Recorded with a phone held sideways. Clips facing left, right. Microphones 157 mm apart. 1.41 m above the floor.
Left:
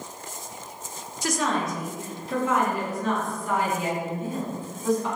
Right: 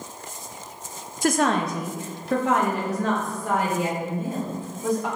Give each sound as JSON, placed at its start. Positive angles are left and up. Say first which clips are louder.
{"t": 1.2, "sound": "a woman speaking", "louder": "right 5 dB", "side_deg": -50, "distance_m": 0.7}